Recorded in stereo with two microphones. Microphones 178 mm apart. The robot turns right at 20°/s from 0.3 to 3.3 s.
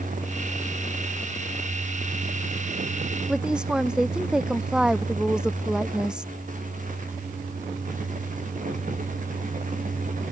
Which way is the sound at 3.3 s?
5° right (ahead or behind).